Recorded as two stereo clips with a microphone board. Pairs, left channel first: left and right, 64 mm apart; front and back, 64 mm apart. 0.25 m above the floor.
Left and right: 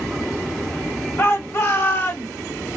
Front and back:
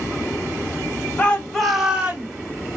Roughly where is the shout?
Ahead left.